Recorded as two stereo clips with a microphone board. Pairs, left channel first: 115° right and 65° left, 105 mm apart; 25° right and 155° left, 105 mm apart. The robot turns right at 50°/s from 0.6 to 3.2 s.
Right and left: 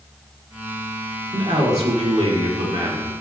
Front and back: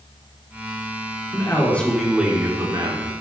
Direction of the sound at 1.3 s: 35° left.